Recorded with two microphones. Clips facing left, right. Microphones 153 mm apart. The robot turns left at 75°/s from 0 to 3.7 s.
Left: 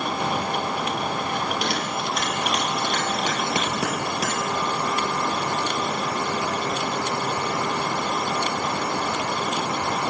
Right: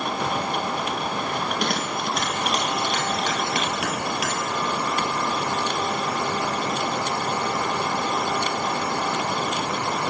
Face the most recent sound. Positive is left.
turn(degrees=35)  # may be behind; listen again after turning